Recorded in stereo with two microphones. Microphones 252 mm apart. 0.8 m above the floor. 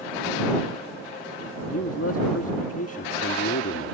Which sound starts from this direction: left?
A man speaking, at 1.7 s.